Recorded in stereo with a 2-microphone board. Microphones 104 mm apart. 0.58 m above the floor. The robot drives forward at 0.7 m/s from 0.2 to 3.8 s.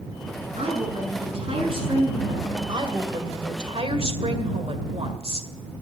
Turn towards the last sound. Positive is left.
turn(degrees=-65)  # may be behind; listen again after turning